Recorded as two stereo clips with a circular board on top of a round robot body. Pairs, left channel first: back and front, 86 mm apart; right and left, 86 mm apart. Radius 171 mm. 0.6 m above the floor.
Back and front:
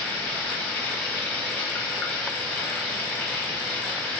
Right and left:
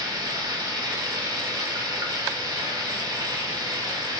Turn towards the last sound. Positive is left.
turn(degrees=115)